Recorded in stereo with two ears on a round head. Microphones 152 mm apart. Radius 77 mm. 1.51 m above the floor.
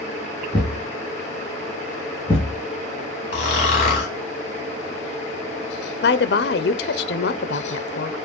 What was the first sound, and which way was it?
A thud, 30° left (ahead or behind).